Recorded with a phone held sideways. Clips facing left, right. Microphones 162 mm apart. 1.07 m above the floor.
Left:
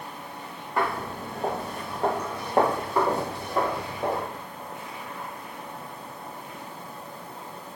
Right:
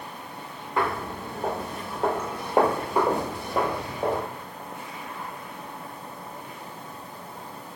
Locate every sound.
0.8 s footsteps: centre (ahead or behind), 1.7 m; by 4.2 s 20° right (ahead or behind), 1.2 m